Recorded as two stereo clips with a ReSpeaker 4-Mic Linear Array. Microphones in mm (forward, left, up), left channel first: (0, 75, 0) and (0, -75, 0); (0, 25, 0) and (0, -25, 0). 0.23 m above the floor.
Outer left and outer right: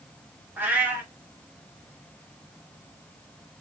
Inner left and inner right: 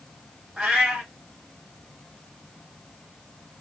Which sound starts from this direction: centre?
A cat meowing, at 0.6 s.